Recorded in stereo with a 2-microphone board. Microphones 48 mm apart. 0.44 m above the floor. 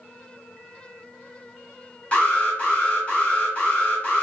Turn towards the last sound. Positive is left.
turn(degrees=25)  # may be behind; listen again after turning